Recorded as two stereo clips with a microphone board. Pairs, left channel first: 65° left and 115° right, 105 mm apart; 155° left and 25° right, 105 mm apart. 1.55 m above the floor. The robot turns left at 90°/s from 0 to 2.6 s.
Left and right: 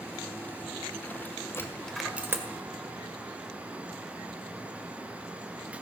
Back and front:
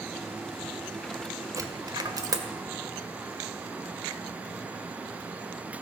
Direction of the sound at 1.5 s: 15° left.